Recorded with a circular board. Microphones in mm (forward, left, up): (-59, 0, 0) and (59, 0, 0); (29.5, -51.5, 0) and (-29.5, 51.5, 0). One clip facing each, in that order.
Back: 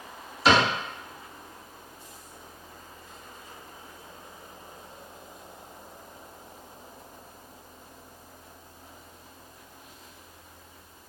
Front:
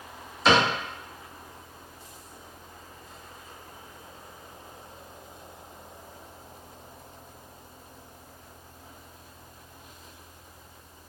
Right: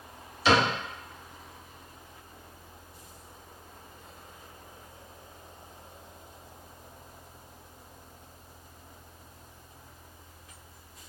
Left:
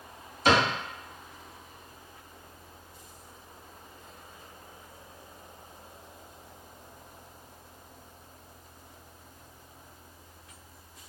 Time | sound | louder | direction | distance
0.5 | a cupboard door | even, even | 90° left | 1.2 m